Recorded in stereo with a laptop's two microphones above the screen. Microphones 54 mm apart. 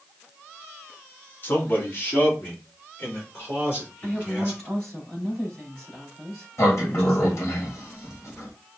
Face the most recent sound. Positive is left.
turn(degrees=60)  # may be behind; listen again after turning